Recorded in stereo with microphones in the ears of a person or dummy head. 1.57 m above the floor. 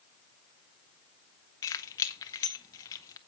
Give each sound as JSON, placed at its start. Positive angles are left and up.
{"t": 1.6, "sound": "keys jangling", "side_deg": 15, "distance_m": 0.8}